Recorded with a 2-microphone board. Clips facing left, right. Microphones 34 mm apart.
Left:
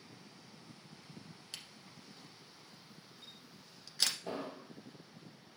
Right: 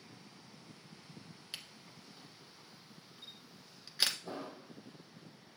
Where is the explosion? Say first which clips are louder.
Left 2 dB; 75° left (ahead or behind), 2.5 m.